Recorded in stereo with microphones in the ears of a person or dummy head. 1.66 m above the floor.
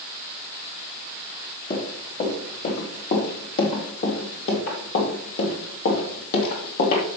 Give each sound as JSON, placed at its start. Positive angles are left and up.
{"t": 1.7, "sound": "running footsteps", "side_deg": 30, "distance_m": 3.5}